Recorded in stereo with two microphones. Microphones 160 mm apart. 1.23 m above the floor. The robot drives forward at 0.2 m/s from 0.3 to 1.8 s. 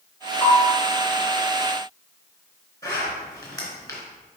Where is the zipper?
20° left (ahead or behind), 2.5 m.